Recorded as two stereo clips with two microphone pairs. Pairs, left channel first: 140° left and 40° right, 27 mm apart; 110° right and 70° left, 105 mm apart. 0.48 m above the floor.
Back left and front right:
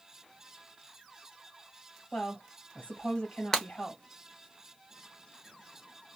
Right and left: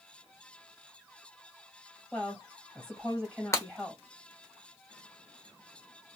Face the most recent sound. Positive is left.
turn(degrees=-160)